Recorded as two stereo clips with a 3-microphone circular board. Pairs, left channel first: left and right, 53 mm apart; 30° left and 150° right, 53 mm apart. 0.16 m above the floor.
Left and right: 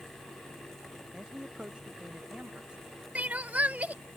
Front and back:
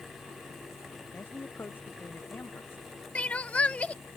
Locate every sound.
1.1 s a man speaking: 20° right; by 3.0 s 25° right
3.1 s crying: 30° right